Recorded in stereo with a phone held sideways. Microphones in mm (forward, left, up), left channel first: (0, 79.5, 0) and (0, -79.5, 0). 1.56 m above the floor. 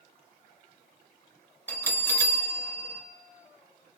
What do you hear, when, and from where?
1.7 s a bell: 10° left (ahead or behind), 1.0 m